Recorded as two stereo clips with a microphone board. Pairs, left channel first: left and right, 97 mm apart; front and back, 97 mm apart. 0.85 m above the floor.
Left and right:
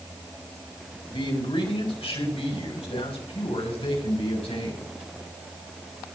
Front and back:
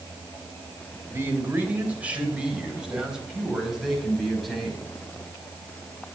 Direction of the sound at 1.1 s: 115° left.